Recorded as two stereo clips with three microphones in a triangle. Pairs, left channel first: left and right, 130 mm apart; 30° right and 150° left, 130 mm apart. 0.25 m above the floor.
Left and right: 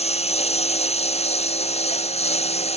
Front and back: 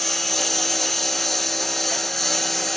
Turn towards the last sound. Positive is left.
turn(degrees=55)